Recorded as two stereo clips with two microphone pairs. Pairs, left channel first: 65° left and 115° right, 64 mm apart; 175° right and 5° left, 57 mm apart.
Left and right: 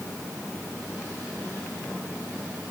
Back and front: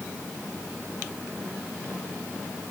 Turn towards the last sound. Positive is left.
No sound to turn to.